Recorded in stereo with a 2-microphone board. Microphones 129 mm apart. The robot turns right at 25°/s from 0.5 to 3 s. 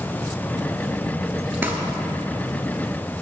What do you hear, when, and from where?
1.6 s crumpling: 15° right (ahead or behind), 0.7 m